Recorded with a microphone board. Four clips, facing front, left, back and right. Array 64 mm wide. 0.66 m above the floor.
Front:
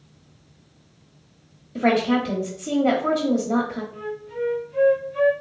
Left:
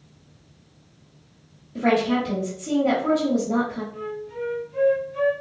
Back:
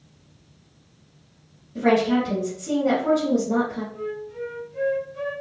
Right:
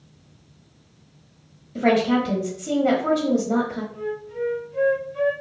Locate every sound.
1.8 s a woman speaking: 20° right, 1.2 m
3.9 s a flute: 15° left, 0.6 m